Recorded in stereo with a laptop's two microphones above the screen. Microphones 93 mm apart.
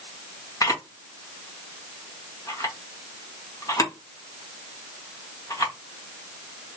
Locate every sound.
0.6 s a camera shutter: 35° left (ahead or behind), 1.3 m